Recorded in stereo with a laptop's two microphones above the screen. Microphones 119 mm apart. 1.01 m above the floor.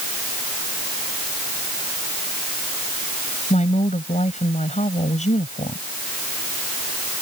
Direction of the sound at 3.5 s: 80° left.